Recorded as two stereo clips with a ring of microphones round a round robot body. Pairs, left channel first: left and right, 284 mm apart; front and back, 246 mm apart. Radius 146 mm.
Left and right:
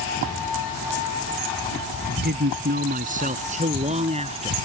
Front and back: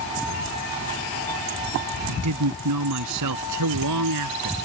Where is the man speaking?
145° right; by 4.5 s 160° right.